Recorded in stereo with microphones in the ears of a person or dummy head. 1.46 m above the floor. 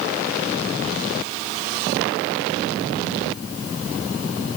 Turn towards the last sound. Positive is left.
No sound to turn to.